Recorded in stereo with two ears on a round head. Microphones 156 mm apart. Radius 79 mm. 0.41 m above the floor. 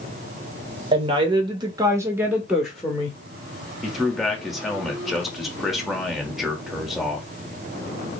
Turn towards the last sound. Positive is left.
turn(degrees=0)  # may be behind; listen again after turning